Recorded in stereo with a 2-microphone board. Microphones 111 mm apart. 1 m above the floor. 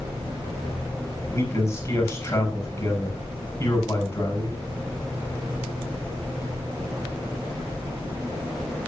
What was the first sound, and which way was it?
A man speaking, 25° left (ahead or behind).